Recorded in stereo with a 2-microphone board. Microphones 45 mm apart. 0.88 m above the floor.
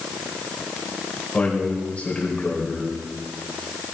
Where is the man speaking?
30° left (ahead or behind), 3.5 m.